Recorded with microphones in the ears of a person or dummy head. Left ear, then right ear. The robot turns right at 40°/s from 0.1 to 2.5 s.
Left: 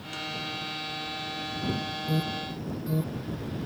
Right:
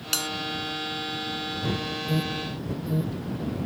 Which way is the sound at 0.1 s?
75° right (ahead or behind).